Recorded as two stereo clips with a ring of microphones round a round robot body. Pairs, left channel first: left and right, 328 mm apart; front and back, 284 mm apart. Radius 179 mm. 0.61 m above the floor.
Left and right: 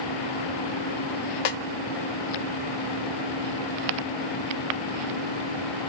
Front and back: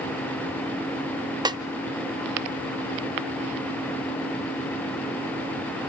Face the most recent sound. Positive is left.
turn(degrees=100)